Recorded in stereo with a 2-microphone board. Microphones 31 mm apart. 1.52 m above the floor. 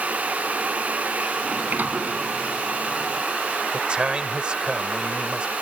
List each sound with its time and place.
1.4 s a sliding door: 70° right (ahead or behind)
3.7 s a man speaking: 35° right (ahead or behind)